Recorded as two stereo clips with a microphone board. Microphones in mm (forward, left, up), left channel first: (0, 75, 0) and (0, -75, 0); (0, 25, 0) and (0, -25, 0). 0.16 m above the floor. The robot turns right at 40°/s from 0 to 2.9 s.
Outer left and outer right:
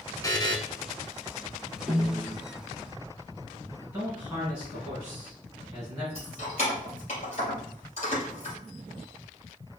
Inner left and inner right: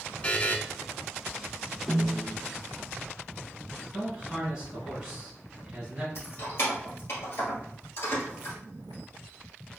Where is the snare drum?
5° right (ahead or behind), 1.5 m; by 2.4 s 15° left (ahead or behind), 1.5 m.